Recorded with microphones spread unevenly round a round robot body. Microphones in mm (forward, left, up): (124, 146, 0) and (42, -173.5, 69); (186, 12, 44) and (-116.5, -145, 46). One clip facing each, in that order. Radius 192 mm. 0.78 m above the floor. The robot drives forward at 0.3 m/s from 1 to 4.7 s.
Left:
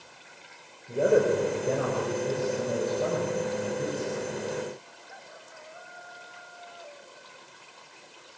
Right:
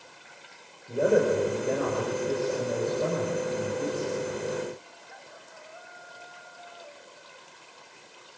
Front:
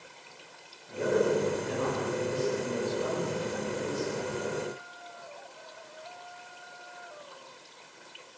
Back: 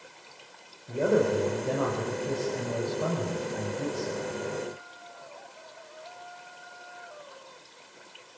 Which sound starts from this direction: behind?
A man speaking, at 0.9 s.